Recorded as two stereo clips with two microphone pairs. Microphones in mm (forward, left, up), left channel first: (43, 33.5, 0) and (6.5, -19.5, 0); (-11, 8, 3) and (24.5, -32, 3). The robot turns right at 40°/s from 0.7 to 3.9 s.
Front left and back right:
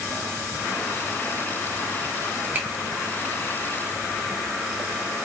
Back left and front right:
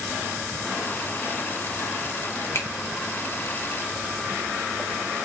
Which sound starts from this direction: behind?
A finger snap, at 2.5 s.